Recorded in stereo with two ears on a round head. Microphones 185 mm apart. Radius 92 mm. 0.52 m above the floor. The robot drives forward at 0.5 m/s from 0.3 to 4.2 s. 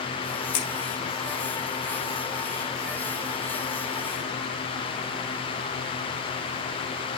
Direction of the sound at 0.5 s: 55° left (ahead or behind).